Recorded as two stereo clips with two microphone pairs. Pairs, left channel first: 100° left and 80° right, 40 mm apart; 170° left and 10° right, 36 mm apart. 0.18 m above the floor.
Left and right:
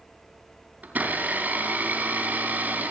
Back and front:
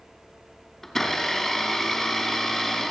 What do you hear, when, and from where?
0.8 s a blender: 120° right, 3 m